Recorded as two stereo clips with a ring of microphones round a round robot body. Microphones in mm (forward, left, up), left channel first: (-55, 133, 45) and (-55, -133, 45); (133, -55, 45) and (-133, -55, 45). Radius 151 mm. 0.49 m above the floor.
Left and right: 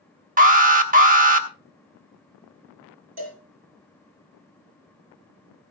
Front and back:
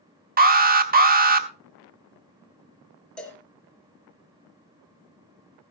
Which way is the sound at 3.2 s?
85° right.